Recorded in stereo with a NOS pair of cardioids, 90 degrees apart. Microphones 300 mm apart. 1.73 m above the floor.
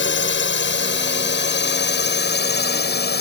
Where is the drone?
40° left; by 3.2 s 35° left.